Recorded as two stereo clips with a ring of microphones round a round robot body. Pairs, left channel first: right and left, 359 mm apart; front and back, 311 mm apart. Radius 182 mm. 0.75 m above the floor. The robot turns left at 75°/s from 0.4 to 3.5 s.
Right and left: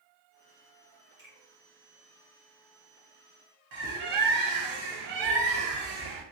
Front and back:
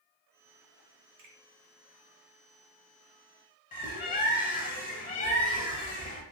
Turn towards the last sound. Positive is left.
turn(degrees=65)